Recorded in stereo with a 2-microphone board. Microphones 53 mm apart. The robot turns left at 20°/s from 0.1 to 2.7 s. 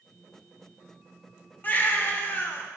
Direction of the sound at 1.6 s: 30° left (ahead or behind).